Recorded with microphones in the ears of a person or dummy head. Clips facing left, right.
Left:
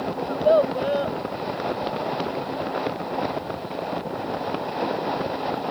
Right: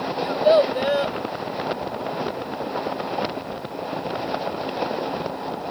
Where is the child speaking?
15° right (ahead or behind).